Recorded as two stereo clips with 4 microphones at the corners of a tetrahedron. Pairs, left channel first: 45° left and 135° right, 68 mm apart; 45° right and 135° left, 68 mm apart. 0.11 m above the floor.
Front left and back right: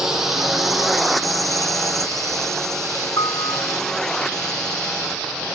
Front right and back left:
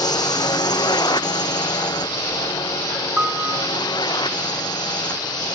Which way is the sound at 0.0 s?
50° right.